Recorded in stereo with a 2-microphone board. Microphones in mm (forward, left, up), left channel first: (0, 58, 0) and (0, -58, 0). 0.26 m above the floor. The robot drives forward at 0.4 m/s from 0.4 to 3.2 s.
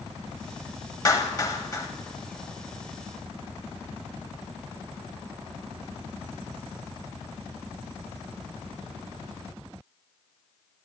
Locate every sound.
1.1 s a clap: 30° left (ahead or behind), 1.1 m